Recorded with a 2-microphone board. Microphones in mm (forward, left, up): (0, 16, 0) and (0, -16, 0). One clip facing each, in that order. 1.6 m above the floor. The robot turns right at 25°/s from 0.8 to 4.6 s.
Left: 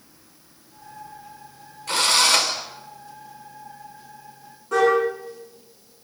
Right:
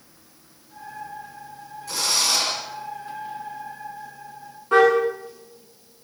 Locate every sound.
1.9 s a drill: 70° left (ahead or behind), 6 m; by 2.5 s 85° left, 6 m
4.7 s a car horn: 40° right (ahead or behind), 8.5 m